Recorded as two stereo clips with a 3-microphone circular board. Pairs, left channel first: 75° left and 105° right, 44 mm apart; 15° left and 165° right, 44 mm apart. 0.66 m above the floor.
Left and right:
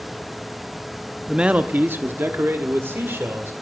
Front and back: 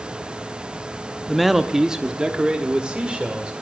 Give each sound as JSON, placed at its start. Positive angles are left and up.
{"t": 1.3, "sound": "a man speaking", "azimuth_deg": -65, "distance_m": 0.6}